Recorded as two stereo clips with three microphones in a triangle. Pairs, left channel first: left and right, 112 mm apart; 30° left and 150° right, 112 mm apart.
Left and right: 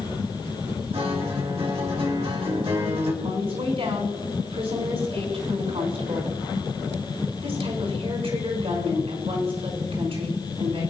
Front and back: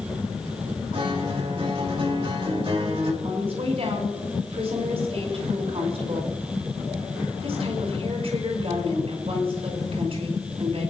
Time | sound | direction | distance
0.9 | a guitar | 115° right | 2.5 m
3.2 | a woman speaking | 115° right | 5 m